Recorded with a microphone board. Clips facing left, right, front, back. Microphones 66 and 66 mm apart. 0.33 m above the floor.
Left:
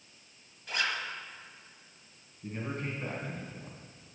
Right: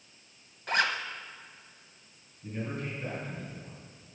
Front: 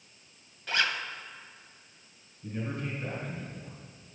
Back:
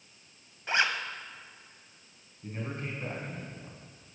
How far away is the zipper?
About 0.7 m.